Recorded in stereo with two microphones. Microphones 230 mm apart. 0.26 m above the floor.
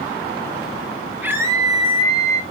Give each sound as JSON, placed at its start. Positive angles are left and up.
{"t": 1.2, "sound": "a scream", "side_deg": -10, "distance_m": 2.5}